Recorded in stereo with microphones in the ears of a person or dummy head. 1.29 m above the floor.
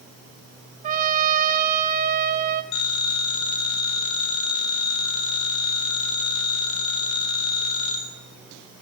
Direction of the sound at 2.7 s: 30° left (ahead or behind).